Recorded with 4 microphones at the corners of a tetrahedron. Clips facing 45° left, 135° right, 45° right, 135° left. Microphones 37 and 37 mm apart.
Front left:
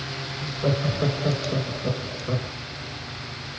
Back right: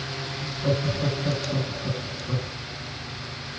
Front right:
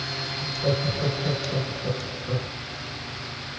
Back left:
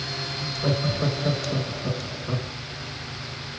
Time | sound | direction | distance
0.4 | laughter | 55° left | 3 m